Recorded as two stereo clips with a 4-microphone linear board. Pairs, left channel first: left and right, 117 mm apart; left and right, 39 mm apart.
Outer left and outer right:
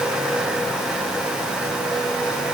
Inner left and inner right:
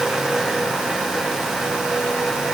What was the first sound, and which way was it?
Only background noise.